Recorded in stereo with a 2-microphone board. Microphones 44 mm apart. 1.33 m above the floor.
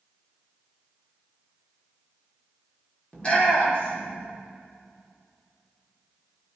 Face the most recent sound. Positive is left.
turn(degrees=25)  # may be behind; listen again after turning